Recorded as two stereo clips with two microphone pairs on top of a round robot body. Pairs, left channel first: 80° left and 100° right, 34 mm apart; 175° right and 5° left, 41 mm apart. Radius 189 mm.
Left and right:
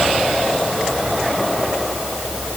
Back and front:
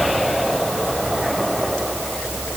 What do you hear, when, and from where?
Only background noise.